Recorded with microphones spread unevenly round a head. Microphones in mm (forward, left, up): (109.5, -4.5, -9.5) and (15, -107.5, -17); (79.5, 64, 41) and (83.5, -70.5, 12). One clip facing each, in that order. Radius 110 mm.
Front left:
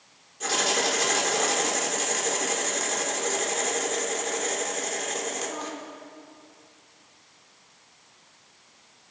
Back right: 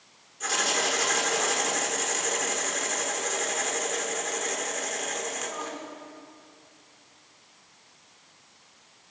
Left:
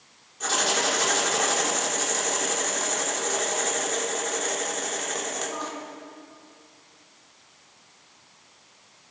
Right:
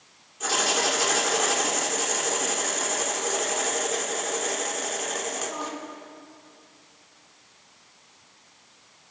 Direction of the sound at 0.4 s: 5° right.